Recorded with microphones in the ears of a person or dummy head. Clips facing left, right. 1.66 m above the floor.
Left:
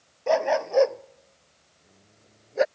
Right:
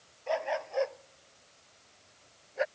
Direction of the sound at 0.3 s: 80° left.